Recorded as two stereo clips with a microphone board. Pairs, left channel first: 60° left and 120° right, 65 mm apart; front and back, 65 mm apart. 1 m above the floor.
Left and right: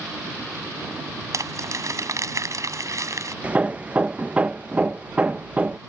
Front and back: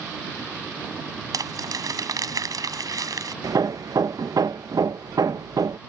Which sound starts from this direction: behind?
Hammering, at 3.4 s.